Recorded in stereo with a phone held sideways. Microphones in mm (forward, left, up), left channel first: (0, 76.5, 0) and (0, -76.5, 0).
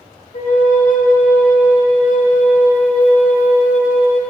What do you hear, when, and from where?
0.3 s a flute: 55° left (ahead or behind), 1.4 m